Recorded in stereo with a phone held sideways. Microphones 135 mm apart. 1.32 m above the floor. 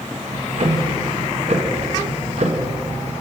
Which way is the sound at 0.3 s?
55° right (ahead or behind).